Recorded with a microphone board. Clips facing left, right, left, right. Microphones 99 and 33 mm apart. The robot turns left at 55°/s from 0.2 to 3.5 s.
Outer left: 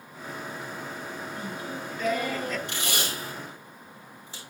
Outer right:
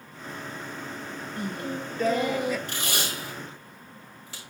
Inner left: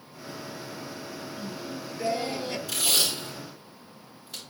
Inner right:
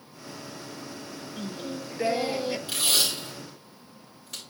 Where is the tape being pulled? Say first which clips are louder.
Even, inner left 1 dB; 40° right (ahead or behind), 4 m; by 4.4 s 85° right, 4 m.